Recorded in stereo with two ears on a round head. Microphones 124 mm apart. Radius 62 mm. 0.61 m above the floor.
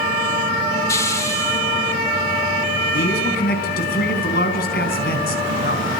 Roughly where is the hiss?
Left.